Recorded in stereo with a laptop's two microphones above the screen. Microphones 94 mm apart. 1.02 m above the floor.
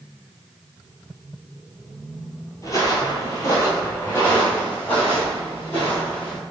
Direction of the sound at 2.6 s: 35° left (ahead or behind).